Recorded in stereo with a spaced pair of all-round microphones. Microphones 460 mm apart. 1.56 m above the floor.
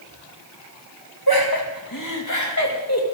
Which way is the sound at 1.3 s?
50° left (ahead or behind).